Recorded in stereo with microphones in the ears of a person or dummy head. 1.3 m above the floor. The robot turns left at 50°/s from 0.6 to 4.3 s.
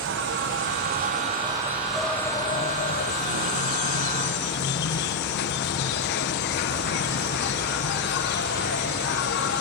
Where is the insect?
110° right; by 9.6 s 65° left.